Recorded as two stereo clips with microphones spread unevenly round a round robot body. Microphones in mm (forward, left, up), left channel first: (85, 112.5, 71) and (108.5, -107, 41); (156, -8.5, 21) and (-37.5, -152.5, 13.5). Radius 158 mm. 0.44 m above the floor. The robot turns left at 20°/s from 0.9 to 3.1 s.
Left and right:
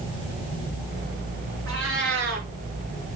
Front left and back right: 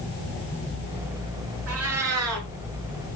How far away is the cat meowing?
About 3 m.